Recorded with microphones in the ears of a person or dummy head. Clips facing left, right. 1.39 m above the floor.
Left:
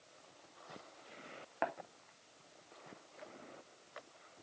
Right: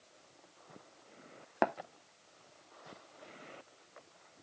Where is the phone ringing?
No phone ringing in this recording.